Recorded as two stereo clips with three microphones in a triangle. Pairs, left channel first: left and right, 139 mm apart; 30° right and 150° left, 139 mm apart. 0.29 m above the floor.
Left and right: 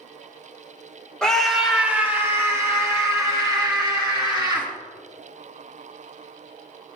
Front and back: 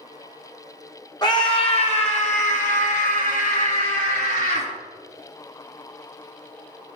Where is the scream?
10° left, 1.6 m; by 4.7 s 30° right, 5 m.